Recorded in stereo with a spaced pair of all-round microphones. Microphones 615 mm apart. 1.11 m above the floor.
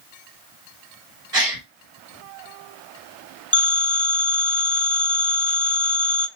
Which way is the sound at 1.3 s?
70° right (ahead or behind).